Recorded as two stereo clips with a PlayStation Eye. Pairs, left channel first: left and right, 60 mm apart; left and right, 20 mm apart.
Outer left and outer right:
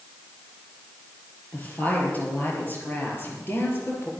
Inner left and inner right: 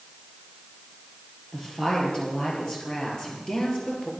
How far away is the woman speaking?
About 5.5 m.